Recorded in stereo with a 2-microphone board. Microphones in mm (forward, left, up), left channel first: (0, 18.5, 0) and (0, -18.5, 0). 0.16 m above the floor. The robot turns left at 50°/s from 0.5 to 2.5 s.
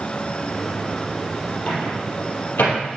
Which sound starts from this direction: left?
A microwave, at 1.7 s.